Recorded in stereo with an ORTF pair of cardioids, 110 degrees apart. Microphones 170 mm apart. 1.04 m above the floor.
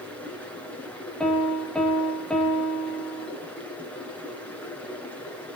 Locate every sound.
0.0 s running water: 10° left, 8 m
1.2 s a piano: 5° left, 4 m